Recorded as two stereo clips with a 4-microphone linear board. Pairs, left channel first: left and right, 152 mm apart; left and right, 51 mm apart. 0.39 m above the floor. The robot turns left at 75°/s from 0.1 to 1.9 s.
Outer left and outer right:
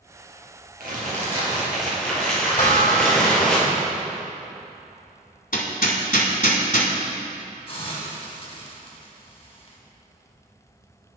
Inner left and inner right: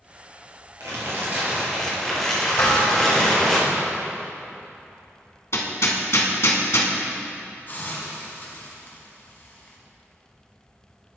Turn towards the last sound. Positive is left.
turn(degrees=40)  # may be behind; listen again after turning